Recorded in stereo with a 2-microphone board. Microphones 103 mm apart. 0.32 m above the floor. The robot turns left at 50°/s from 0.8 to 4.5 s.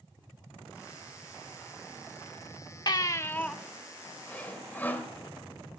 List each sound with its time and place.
2.9 s a baby crying: 45° left, 0.5 m; by 3.5 s 10° left, 0.5 m
4.3 s sawing: 15° left (ahead or behind), 1.6 m; by 5.1 s 20° left (ahead or behind), 1.6 m